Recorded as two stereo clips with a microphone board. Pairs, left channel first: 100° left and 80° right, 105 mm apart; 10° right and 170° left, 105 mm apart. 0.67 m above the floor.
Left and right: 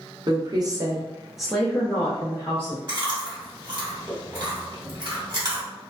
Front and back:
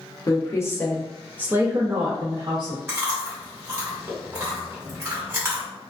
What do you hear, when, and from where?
0.3 s a woman speaking: 60° right, 0.8 m; by 2.8 s 145° left, 1.0 m
2.9 s chewing: 120° right, 1.4 m